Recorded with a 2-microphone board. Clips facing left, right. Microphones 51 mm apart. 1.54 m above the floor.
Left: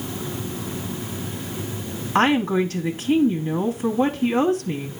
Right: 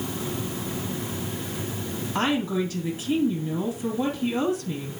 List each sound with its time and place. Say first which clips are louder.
2.1 s a woman speaking: left 6 dB; 55° left (ahead or behind), 1.2 m